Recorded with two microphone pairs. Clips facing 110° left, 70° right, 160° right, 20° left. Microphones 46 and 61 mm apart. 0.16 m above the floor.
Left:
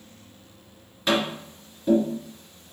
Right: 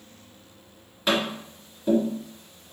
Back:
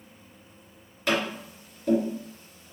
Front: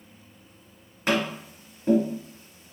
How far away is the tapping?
About 1.6 m.